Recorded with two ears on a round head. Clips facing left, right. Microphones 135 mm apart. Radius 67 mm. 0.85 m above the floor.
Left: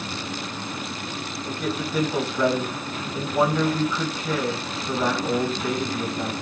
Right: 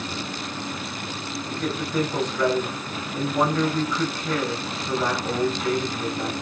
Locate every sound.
1.4 s a man speaking: 10° left (ahead or behind), 6 m